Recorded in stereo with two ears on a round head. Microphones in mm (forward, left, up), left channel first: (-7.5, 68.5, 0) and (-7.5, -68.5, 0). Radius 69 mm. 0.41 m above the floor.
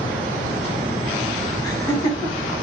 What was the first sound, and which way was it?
Laughter, 25° left (ahead or behind).